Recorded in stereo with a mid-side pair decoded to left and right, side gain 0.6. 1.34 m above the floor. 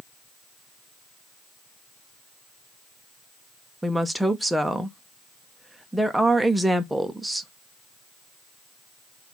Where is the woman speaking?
5° right, 0.7 m.